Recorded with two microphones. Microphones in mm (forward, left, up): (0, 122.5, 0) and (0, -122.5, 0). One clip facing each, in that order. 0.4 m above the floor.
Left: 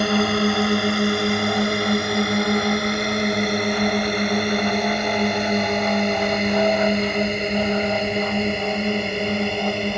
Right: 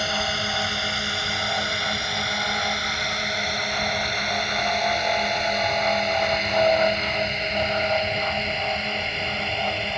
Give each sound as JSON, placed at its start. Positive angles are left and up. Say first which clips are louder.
{"t": 0.0, "sound": "a drone", "louder": "left 12 dB", "side_deg": 65}